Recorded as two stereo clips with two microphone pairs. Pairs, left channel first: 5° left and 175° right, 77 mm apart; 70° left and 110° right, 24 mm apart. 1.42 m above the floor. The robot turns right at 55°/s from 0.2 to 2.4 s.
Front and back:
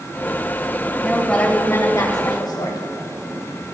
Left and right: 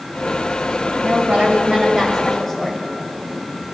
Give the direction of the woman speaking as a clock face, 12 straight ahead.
3 o'clock.